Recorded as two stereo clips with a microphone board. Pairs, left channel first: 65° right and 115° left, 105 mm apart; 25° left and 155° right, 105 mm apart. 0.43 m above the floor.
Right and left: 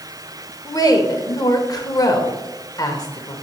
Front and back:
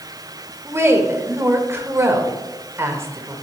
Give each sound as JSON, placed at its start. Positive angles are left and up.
{"t": 0.7, "sound": "a woman speaking", "azimuth_deg": -100, "distance_m": 1.1}